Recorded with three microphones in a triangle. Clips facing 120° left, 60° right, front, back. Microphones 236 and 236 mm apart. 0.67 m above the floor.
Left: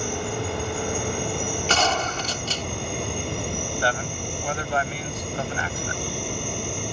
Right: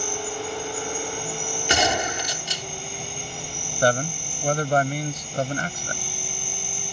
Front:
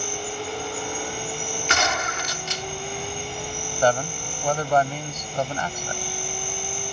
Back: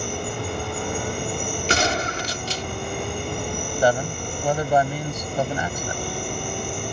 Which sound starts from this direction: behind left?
An insect, at 0.0 s.